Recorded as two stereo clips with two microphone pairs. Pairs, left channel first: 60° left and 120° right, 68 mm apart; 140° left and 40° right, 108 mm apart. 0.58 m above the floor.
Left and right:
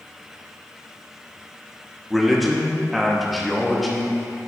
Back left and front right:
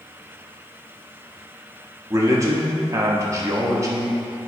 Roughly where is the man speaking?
Ahead right.